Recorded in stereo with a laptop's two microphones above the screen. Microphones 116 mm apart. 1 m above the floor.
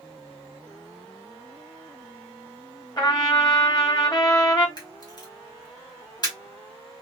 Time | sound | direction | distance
3.0 | a trumpet | 35° left (ahead or behind) | 1.4 m
4.8 | a camera shutter | 35° left (ahead or behind) | 1.5 m